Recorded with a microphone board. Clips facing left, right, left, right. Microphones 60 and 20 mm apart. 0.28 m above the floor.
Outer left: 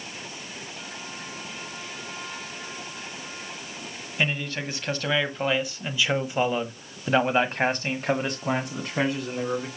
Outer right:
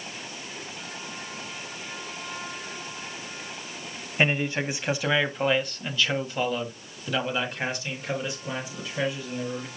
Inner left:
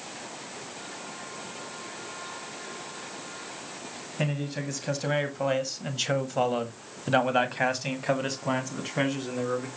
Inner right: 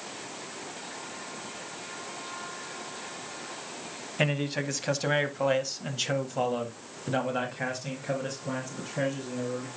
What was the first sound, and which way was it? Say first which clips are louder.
A man speaking: outer right 3 dB, inner right 3 dB; 25° right (ahead or behind).